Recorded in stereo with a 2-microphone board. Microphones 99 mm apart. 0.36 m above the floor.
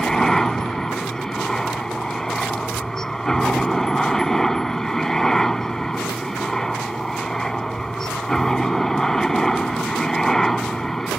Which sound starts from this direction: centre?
A helicopter, at 0.0 s.